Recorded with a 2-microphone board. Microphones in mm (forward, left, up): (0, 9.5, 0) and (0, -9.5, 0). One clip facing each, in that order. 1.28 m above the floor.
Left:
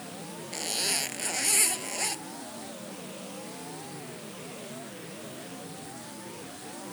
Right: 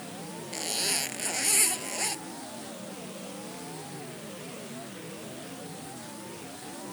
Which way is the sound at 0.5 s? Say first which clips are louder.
Even; 5° right (ahead or behind).